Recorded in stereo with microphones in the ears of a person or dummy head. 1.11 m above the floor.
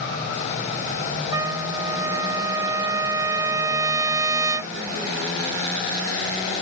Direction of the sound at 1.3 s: 20° right (ahead or behind).